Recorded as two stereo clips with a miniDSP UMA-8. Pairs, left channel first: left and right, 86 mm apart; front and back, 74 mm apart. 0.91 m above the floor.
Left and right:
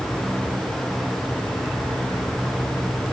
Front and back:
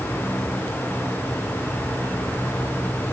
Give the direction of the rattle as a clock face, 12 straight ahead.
No rattle in this recording.